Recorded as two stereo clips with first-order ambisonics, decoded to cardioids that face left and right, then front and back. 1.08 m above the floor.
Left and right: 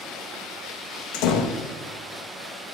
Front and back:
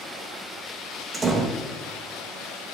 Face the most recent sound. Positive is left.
turn(degrees=105)